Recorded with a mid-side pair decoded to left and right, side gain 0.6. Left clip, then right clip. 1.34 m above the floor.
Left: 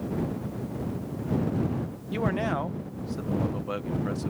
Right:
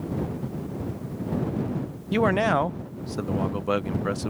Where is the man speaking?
40° right.